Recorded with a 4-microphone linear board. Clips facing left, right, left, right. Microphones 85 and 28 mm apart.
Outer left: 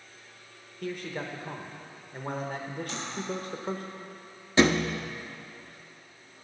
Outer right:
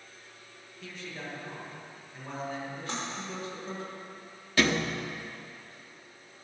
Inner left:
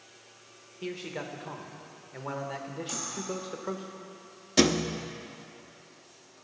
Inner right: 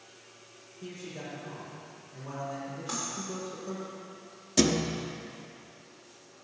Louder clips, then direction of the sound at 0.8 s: Outer left 7 dB, inner left 5 dB; 55° left (ahead or behind).